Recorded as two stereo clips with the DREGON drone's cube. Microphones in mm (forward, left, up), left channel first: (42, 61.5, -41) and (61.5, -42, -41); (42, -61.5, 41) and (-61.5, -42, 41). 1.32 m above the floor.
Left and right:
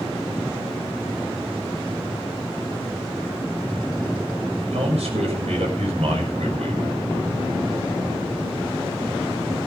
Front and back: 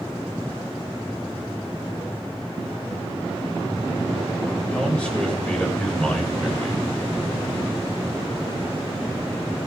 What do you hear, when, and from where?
4.7 s a man speaking: 90° right, 6.5 m